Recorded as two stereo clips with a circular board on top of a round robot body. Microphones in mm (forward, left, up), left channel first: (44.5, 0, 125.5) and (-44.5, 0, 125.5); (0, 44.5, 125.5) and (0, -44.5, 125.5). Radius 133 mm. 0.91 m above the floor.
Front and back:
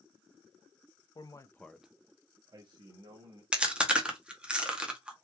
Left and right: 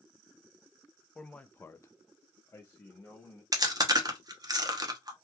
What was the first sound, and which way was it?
A man speaking, 10° left.